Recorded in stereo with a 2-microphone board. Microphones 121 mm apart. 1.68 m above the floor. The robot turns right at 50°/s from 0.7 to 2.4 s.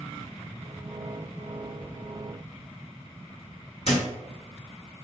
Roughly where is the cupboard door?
Left.